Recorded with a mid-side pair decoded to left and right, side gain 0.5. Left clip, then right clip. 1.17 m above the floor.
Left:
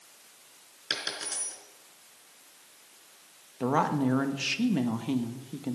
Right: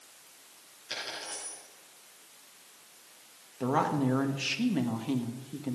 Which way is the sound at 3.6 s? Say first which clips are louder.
Left 2 dB; 20° left.